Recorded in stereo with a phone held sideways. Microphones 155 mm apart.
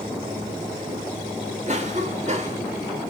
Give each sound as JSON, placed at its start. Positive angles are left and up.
{"t": 1.7, "sound": "a cough", "side_deg": -50, "distance_m": 3.0}